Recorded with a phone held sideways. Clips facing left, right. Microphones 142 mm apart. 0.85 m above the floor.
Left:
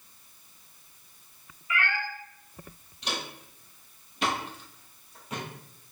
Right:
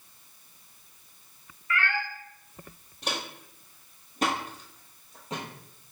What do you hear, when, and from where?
1.7 s a cat meowing: 15° left (ahead or behind), 0.8 m
3.0 s footsteps: 50° right (ahead or behind), 1.3 m; by 5.4 s 25° right (ahead or behind), 1.4 m